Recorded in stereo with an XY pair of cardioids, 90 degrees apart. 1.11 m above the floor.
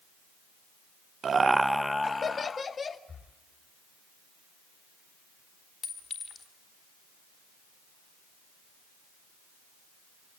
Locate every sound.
1.2 s laughter: 55° right, 0.6 m; by 3.0 s 45° left, 1.9 m
3.1 s breathing: 45° left, 3 m
5.8 s a clink: 60° left, 4 m